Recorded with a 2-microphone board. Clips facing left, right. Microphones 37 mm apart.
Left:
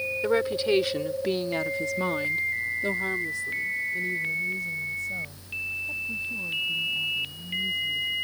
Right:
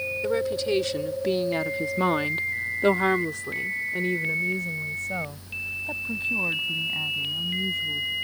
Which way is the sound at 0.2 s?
25° left (ahead or behind).